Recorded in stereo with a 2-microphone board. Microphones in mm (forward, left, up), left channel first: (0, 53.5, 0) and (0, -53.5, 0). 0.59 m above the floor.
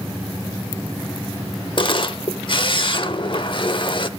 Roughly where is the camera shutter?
Left.